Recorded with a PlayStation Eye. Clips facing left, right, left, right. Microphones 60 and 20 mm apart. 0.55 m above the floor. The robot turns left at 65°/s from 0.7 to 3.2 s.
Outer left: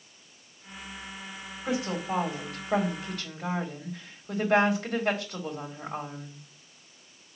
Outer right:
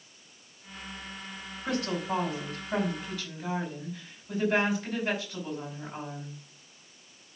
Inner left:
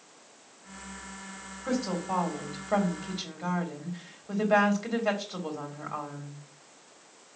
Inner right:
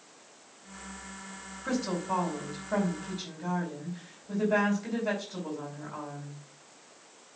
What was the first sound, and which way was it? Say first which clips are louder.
A woman speaking: outer left 1 dB, inner left 1 dB; 175° left.